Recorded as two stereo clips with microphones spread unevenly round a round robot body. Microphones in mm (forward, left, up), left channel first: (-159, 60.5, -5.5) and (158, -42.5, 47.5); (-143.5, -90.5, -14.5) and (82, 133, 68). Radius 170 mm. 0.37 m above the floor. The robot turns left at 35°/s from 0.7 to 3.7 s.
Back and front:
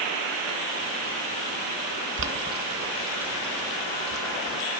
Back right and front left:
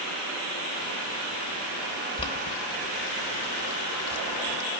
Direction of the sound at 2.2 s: 70° right.